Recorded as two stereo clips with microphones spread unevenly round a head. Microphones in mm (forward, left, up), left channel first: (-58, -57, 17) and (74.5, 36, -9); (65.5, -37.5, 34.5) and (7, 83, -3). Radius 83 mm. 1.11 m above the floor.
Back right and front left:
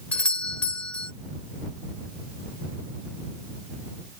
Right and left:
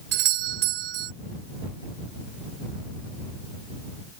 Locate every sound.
0.1 s a doorbell: 135° left